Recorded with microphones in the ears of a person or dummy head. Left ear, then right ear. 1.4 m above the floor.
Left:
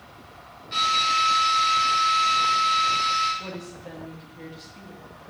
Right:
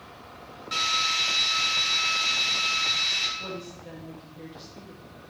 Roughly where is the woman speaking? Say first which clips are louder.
Even; centre.